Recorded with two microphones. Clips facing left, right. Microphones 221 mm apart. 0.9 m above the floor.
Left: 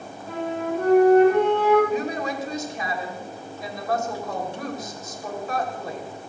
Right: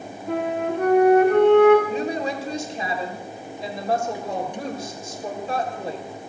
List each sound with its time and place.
0.3 s a flute: 75° right (ahead or behind), 6.5 m
1.9 s a woman speaking: 30° right (ahead or behind), 4 m